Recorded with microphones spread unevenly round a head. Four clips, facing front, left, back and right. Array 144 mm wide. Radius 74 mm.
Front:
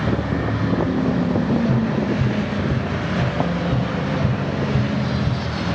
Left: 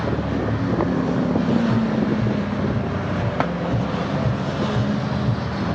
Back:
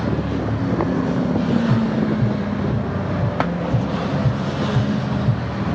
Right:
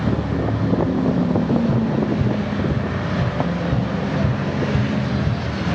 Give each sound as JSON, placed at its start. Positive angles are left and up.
{"t": 1.7, "sound": "tapping", "azimuth_deg": -85, "distance_m": 1.0}